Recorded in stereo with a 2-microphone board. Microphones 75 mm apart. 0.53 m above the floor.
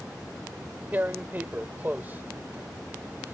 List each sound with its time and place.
0.9 s tearing paper: 25° right (ahead or behind)